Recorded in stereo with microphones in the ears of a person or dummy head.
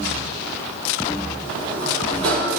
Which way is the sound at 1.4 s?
75° right (ahead or behind).